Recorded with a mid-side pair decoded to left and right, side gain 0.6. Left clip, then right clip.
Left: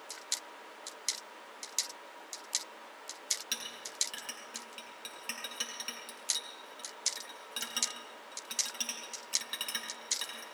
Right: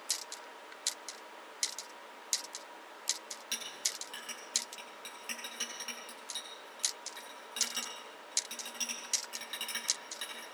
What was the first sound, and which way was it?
A clink, 20° left.